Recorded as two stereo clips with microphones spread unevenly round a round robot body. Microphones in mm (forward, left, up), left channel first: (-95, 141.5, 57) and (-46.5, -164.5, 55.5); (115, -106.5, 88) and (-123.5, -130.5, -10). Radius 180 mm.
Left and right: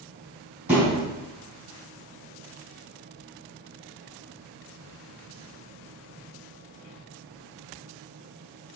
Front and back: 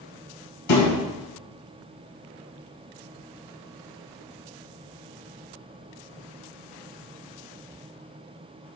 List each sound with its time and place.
0.7 s a thud: 5° left, 3.5 m